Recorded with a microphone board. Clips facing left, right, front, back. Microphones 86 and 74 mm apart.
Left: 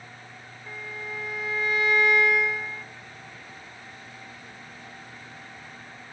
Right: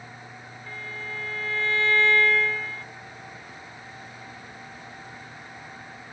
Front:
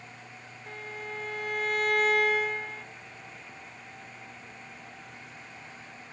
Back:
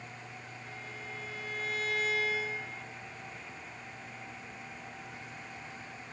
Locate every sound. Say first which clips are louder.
0.7 s a violin: even, front 7 dB; 15° left, 0.6 m